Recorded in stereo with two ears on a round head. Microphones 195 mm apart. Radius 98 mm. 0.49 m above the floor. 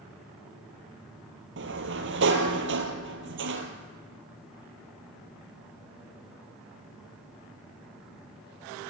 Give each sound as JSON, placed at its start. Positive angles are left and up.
{"t": 1.6, "sound": "a sliding door", "side_deg": -60, "distance_m": 2.5}